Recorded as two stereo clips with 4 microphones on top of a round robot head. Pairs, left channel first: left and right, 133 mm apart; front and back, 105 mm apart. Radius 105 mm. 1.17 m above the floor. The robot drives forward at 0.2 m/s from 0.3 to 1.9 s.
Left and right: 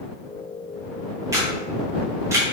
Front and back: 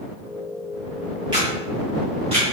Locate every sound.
1.3 s a camera shutter: 140° right, 0.9 m; by 2.5 s 150° right, 0.9 m